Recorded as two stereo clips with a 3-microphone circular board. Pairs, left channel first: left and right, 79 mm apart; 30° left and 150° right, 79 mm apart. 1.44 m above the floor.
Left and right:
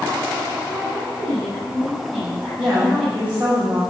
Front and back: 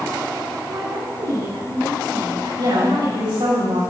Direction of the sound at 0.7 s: 170° right.